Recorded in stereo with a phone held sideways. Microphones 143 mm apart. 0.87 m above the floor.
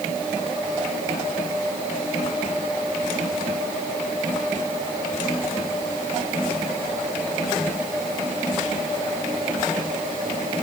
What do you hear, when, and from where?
Only background noise.